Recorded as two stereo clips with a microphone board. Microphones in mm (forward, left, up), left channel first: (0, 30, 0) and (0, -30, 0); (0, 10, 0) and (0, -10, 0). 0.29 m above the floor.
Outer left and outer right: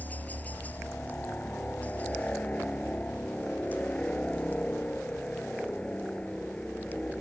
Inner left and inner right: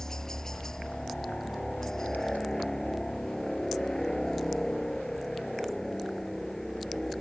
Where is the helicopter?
25° left (ahead or behind); by 7.2 s 15° left (ahead or behind).